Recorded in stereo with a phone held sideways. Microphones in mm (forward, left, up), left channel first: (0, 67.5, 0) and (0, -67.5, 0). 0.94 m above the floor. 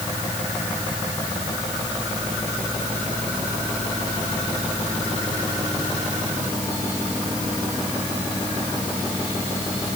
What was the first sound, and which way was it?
Only background noise.